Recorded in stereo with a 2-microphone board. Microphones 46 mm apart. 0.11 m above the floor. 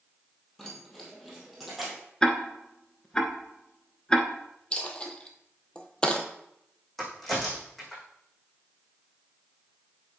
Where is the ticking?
15° left (ahead or behind), 1.0 m.